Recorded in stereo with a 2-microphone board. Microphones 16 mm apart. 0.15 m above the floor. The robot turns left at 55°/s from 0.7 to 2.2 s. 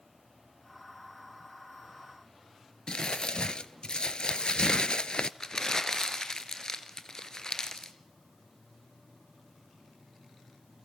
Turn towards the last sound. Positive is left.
turn(degrees=40)  # may be behind; listen again after turning